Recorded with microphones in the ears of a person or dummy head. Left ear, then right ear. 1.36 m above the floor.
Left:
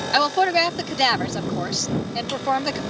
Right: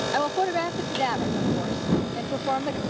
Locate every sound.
0.1 s a woman speaking: 75° left (ahead or behind)